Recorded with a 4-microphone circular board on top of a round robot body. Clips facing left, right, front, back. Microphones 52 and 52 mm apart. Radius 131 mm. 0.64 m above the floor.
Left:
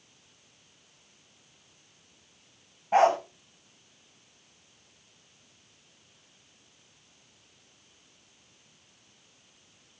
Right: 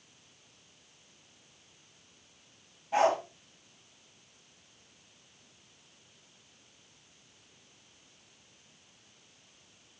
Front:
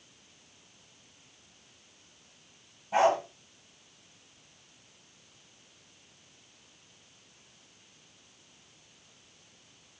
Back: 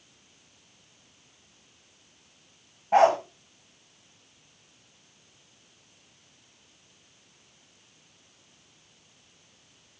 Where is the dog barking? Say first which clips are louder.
Left 4 dB, back 5 dB; 140° left, 2 m.